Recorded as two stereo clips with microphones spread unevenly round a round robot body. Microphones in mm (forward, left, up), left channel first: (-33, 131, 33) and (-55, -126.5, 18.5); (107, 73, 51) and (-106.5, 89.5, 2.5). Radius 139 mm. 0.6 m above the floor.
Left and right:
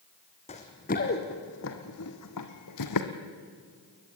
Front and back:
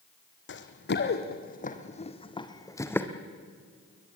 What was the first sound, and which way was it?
Running footsteps, 20° left.